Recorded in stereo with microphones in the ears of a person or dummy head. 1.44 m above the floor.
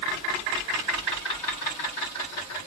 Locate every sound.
Only background noise.